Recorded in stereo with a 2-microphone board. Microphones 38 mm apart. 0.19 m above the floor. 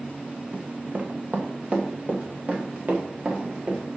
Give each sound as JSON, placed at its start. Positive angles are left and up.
{"t": 0.5, "sound": "running footsteps", "side_deg": -35, "distance_m": 0.8}